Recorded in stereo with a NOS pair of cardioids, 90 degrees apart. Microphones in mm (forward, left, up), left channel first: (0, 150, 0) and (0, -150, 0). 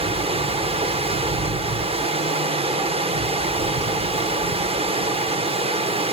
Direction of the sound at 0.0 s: 20° right.